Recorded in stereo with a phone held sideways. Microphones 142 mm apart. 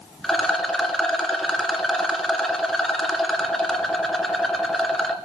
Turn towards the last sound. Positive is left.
turn(degrees=0)  # may be behind; listen again after turning